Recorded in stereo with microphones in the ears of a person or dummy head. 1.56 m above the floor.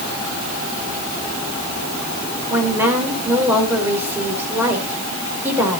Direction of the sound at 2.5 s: 10° right (ahead or behind).